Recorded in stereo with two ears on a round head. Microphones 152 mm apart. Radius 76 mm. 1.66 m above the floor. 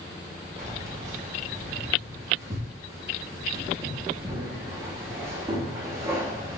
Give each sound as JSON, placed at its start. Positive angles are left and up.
{"t": 0.6, "sound": "keys jangling", "side_deg": -20, "distance_m": 0.9}